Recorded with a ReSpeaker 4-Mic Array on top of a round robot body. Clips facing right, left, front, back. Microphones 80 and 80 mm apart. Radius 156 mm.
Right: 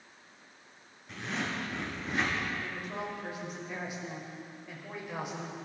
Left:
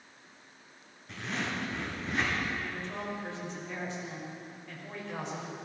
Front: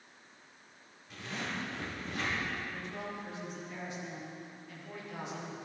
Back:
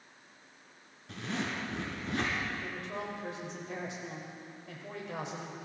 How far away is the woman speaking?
About 6 m.